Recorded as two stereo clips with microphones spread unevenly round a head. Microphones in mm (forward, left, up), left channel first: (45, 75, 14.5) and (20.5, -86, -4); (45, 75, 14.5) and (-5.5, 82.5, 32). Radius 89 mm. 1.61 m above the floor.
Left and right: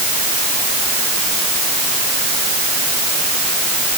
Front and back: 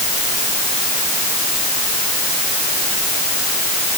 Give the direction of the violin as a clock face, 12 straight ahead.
No violin in this recording.